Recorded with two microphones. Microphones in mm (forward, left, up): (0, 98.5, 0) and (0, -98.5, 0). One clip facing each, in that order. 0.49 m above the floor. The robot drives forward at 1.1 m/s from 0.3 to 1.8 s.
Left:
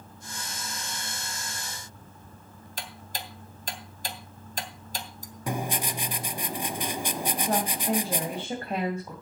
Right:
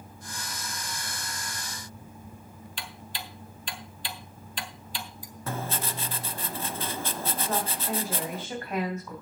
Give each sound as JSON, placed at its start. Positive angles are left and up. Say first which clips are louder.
{"t": 2.8, "sound": "ticking", "louder": "left 3 dB", "side_deg": 40, "distance_m": 1.4}
{"t": 5.5, "sound": "writing", "louder": "left 3 dB", "side_deg": 15, "distance_m": 0.7}
{"t": 7.5, "sound": "a woman speaking", "louder": "left 5 dB", "side_deg": 30, "distance_m": 3.0}